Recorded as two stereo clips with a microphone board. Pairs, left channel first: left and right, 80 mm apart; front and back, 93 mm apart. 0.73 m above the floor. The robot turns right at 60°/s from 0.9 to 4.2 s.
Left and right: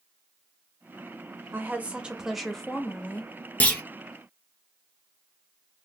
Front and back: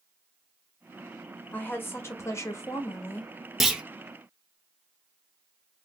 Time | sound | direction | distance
1.5 | a woman speaking | 55° right | 0.7 m
3.6 | a clunk | 95° left | 0.6 m